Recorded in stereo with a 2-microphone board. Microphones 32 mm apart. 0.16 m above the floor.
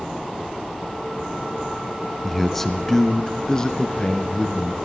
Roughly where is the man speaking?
Centre.